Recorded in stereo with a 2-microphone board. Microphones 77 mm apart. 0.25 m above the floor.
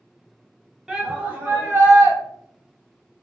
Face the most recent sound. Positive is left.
turn(degrees=-40)  # may be behind; listen again after turning